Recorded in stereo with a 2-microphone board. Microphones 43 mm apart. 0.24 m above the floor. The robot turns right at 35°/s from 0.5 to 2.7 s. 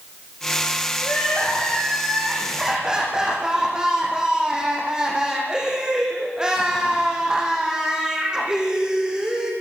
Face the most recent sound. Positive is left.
turn(degrees=-160)